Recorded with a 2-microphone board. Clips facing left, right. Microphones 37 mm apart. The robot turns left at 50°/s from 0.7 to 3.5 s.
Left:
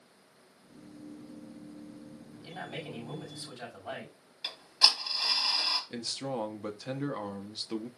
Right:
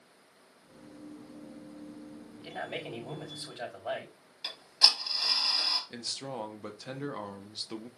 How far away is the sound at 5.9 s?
About 0.8 m.